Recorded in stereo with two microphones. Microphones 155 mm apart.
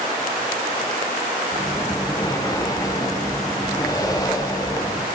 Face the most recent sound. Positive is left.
turn(degrees=25)  # may be behind; listen again after turning